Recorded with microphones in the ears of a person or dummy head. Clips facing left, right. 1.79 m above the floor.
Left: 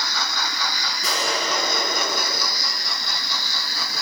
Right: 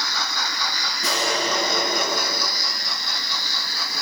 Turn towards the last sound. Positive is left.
turn(degrees=-20)  # may be behind; listen again after turning